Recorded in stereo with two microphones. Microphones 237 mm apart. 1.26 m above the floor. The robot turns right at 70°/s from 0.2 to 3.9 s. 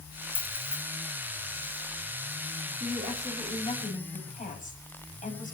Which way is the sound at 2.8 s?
45° right.